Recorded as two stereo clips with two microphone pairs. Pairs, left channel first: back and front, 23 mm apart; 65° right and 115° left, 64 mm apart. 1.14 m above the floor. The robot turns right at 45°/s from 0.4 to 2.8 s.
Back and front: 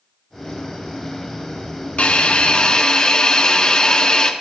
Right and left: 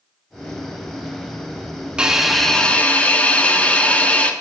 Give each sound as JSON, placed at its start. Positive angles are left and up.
{"t": 2.0, "sound": "a hiss", "azimuth_deg": -170, "distance_m": 1.0}